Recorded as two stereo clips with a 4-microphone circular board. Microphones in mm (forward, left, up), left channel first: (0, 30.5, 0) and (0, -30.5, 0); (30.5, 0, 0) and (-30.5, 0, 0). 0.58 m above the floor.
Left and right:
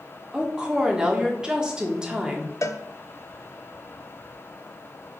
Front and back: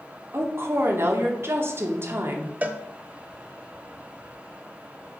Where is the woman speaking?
160° right, 1.3 m.